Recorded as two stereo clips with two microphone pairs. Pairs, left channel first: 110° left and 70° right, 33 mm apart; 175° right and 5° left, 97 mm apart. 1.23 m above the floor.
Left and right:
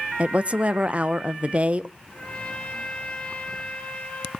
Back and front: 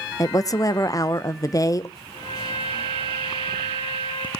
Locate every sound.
0.2 s a woman speaking: 115° right, 0.6 m
2.1 s a trumpet: 165° left, 6.5 m